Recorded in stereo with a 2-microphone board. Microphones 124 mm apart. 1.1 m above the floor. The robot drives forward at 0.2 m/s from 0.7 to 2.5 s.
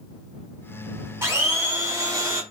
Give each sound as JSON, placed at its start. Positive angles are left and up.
{"t": 1.2, "sound": "a blender", "side_deg": -20, "distance_m": 0.8}